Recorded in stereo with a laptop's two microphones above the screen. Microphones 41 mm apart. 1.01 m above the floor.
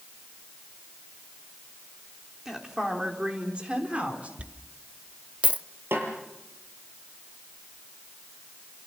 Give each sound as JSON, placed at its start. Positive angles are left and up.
{"t": 2.5, "sound": "a woman speaking", "side_deg": -10, "distance_m": 3.0}
{"t": 4.4, "sound": "a dropped coin", "side_deg": -35, "distance_m": 0.6}
{"t": 5.9, "sound": "a snare drum", "side_deg": -85, "distance_m": 6.5}